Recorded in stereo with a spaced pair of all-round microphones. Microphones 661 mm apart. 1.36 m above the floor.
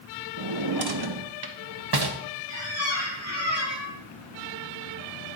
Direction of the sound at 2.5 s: 20° left (ahead or behind).